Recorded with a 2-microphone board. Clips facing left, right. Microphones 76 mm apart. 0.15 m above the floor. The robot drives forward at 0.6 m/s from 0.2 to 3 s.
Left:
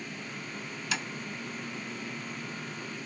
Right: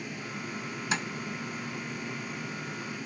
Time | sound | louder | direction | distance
0.9 | tapping | right 3 dB | 30° right (ahead or behind) | 0.6 m